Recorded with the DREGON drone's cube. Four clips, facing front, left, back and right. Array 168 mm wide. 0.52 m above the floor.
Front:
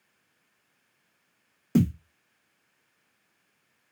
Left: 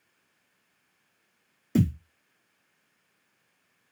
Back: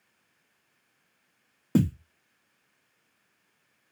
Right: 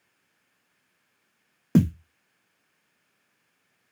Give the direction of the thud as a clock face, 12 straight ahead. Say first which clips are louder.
Right 4 dB, front 1 dB; 4 o'clock.